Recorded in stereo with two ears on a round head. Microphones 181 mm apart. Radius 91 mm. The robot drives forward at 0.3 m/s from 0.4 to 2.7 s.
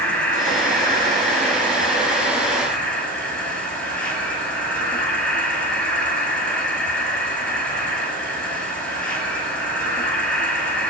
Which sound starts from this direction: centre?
An insect, at 0.0 s.